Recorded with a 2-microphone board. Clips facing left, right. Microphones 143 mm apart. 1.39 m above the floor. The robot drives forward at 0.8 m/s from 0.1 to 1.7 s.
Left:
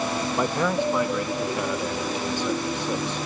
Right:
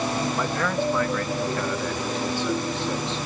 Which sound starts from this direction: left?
A man speaking, at 0.4 s.